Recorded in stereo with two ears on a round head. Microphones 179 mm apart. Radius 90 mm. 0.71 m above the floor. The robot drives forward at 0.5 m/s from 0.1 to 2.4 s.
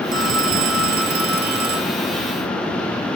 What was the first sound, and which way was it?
A phone ringing, 65° right (ahead or behind).